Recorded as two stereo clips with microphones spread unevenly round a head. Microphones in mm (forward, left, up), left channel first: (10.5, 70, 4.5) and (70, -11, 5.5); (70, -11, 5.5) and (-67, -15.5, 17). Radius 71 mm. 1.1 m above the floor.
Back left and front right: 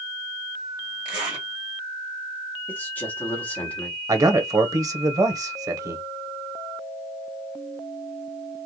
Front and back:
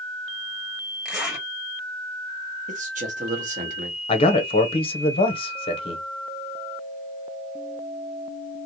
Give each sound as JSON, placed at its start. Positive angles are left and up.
{"t": 1.1, "sound": "a zipper", "azimuth_deg": -95, "distance_m": 1.5}
{"t": 2.7, "sound": "a man speaking", "azimuth_deg": -160, "distance_m": 1.2}
{"t": 4.1, "sound": "a man speaking", "azimuth_deg": -15, "distance_m": 0.8}